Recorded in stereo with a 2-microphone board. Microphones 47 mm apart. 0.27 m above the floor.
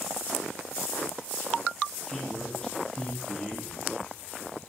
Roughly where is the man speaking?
Centre.